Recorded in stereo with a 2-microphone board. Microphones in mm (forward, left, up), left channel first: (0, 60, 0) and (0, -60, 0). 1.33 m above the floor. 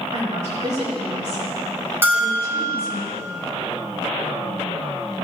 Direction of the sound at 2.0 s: 20° right (ahead or behind).